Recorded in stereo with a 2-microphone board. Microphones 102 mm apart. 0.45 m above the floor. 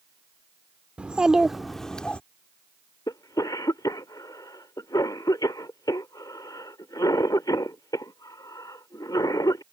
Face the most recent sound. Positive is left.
turn(degrees=40)  # may be behind; listen again after turning